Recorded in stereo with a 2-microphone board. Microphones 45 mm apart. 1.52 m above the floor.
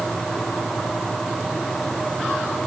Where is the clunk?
No clunk in this recording.